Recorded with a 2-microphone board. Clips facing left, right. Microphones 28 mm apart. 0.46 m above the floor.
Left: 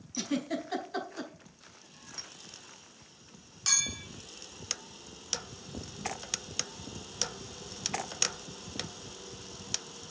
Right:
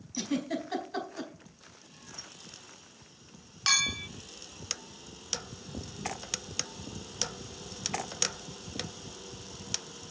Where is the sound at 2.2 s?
70° left (ahead or behind), 1.6 m.